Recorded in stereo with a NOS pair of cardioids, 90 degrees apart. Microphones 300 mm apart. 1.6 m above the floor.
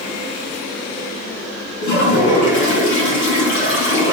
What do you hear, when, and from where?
1.8 s a toilet flushing: 70° left, 2.5 m